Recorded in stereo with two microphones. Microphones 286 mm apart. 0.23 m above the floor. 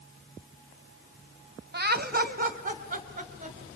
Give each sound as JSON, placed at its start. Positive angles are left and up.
{"t": 1.7, "sound": "laughter", "side_deg": -35, "distance_m": 1.5}